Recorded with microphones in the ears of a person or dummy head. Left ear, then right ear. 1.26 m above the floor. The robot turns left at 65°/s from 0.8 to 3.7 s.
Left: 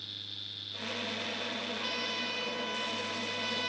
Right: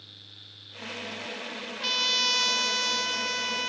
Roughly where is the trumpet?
Ahead right.